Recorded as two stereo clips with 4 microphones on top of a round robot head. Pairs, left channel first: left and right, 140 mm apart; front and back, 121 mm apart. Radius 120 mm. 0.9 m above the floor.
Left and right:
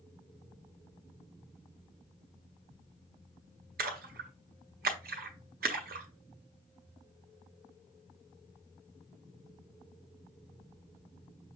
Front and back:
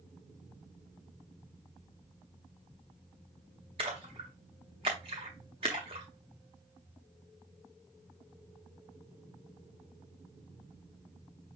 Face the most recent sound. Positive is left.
turn(degrees=-120)